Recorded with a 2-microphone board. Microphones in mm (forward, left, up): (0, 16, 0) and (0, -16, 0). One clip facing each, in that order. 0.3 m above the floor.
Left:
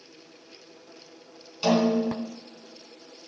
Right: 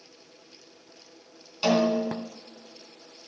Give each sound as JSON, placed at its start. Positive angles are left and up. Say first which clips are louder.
{"t": 1.6, "sound": "a snare drum", "louder": "left 1 dB", "side_deg": -15, "distance_m": 3.0}